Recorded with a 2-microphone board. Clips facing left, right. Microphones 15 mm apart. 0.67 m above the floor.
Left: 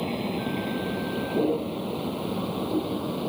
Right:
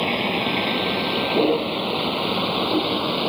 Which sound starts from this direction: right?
A vehicle, at 0.0 s.